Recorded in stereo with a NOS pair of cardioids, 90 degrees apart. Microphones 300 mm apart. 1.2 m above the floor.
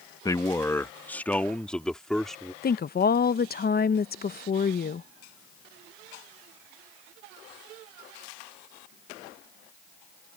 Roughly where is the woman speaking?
Ahead left.